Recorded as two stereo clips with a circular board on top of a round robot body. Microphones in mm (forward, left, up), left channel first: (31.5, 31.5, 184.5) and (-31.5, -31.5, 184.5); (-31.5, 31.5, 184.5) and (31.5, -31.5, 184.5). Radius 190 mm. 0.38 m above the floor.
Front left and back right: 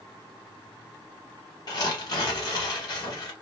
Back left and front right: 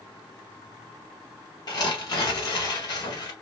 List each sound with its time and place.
1.7 s tearing paper: 90° left, 0.6 m